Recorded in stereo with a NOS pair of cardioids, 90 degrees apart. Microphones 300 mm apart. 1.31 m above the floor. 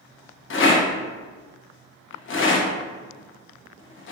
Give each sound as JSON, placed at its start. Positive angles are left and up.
{"t": 0.5, "sound": "a rattle", "azimuth_deg": 40, "distance_m": 0.9}